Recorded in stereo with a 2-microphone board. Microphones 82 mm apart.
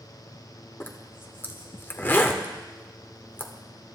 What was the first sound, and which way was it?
A zipper, 25° left (ahead or behind).